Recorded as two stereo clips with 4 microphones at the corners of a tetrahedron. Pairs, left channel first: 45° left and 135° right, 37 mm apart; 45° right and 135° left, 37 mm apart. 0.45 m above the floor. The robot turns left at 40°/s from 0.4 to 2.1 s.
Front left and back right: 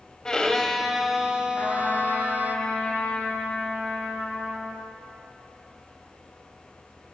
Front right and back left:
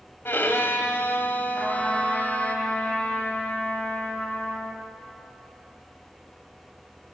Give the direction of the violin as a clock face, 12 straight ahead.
1 o'clock.